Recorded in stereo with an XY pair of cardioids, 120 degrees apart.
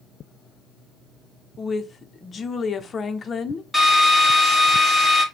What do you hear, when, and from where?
1.6 s a woman speaking: 35° left, 0.6 m
3.7 s a drill: 5° right, 1.4 m